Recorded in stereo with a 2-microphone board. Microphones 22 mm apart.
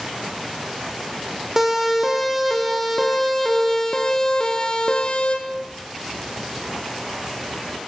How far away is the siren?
About 5 m.